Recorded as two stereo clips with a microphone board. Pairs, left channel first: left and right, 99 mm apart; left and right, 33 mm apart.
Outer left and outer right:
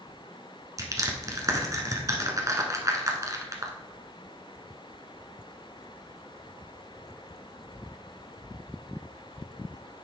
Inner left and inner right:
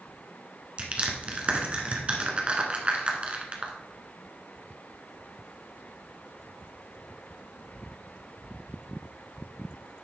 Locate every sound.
0.8 s crushing: 35° right (ahead or behind), 1.4 m